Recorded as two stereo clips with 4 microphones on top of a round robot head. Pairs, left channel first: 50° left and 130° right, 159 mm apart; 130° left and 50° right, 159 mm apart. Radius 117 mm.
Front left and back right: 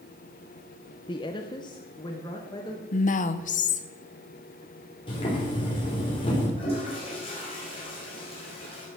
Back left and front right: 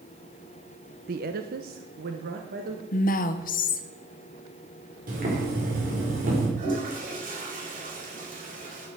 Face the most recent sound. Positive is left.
turn(degrees=-10)